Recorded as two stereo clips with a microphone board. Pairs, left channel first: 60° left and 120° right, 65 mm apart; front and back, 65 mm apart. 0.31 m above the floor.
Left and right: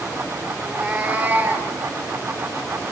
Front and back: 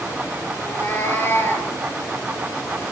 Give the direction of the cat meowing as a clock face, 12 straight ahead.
1 o'clock.